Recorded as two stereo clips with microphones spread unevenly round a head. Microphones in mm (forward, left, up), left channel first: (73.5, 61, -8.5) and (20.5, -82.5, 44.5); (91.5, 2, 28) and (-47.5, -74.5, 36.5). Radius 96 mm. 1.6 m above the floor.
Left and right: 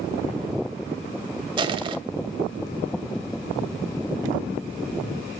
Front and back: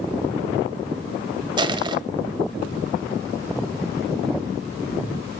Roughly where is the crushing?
Right.